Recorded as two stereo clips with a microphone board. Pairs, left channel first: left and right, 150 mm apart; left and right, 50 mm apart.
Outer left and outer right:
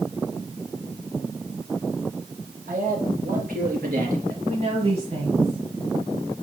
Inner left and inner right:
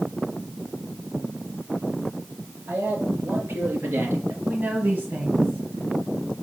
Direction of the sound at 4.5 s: 45° right (ahead or behind).